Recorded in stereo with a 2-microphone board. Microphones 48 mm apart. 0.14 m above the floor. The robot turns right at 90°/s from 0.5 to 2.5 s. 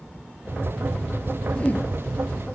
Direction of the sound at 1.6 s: 30° left.